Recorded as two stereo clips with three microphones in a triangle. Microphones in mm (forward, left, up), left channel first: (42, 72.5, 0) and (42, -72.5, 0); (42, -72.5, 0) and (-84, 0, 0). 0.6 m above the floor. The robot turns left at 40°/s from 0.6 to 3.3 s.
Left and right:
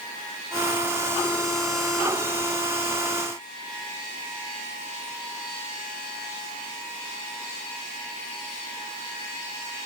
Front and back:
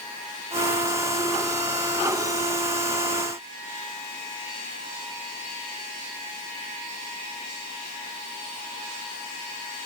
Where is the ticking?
I don't hear ticking.